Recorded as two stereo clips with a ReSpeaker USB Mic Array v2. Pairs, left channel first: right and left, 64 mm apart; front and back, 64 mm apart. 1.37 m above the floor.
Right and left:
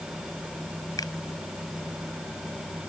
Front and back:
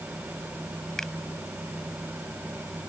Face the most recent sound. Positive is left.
turn(degrees=-80)